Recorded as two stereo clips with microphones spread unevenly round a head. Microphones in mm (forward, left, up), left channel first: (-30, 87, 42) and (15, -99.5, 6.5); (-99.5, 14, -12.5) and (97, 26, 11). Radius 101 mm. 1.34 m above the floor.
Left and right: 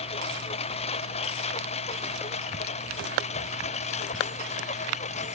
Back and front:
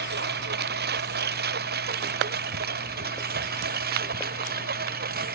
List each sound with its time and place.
0.0 s a lawn mower: 40° left; by 5.3 s 45° left